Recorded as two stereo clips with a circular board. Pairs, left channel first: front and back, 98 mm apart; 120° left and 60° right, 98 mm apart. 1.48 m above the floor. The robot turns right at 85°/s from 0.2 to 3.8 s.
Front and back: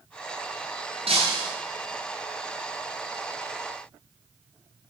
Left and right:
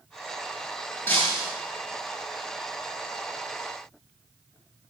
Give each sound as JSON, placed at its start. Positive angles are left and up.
{"t": 1.1, "sound": "breaking glass", "azimuth_deg": -170, "distance_m": 8.0}